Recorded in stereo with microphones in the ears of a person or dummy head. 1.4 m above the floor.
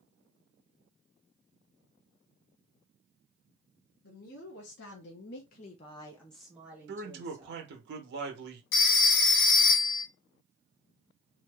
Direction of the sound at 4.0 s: 55° left (ahead or behind).